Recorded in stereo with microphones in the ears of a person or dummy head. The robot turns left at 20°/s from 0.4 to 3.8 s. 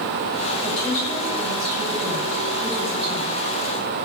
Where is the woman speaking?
35° left, 6.5 m; by 3.4 s 20° right, 6.5 m.